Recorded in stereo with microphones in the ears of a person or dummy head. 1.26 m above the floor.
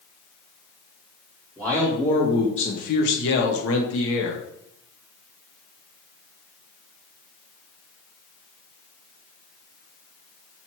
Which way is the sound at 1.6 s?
5° left (ahead or behind).